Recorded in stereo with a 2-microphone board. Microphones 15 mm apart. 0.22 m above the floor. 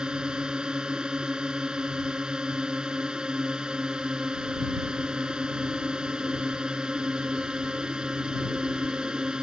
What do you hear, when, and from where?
0.0 s a drone: 65° right (ahead or behind)